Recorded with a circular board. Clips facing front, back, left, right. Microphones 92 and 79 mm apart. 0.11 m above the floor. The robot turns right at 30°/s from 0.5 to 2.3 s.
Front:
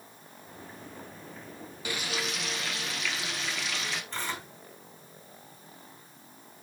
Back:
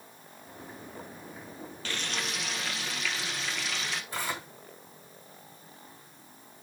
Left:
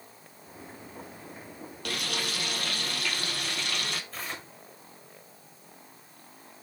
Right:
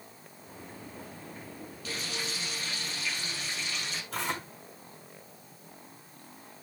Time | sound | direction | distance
1.9 | frying | 75° left | 1.4 m
4.1 | tearing paper | 100° right | 5 m